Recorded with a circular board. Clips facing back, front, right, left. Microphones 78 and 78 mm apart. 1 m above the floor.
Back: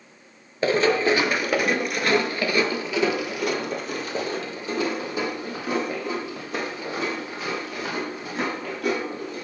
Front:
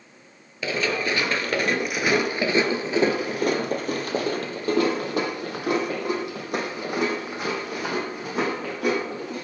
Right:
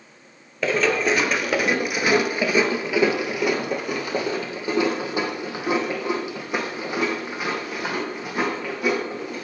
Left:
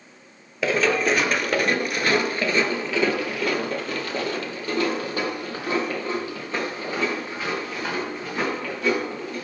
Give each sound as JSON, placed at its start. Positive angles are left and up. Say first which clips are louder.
{"t": 0.6, "sound": "running footsteps", "louder": "back 6 dB, even", "azimuth_deg": 175, "distance_m": 1.1}